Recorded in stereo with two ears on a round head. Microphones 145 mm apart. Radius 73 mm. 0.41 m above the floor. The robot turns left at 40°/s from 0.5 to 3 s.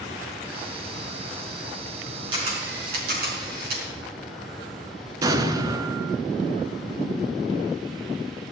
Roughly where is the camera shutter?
Right.